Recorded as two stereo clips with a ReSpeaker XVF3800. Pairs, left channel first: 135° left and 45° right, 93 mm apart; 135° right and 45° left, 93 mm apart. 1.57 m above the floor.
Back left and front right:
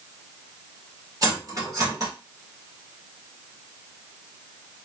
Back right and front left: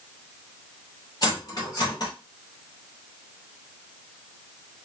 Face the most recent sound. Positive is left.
turn(degrees=-90)